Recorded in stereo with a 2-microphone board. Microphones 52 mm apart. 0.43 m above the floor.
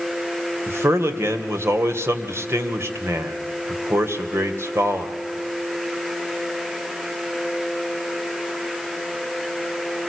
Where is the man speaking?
55° right (ahead or behind), 2 m.